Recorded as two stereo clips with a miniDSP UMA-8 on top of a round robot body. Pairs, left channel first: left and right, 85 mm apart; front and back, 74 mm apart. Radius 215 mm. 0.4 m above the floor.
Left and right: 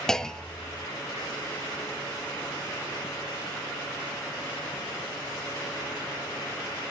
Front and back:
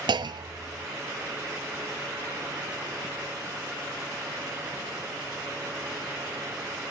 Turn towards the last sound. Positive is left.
turn(degrees=175)